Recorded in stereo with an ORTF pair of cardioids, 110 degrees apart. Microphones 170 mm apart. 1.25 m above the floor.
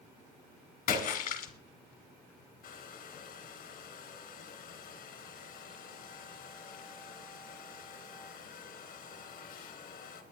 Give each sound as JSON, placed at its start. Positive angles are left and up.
{"t": 0.9, "sound": "a splash", "azimuth_deg": 65, "distance_m": 2.5}
{"t": 2.6, "sound": "a hair dryer", "azimuth_deg": 65, "distance_m": 3.0}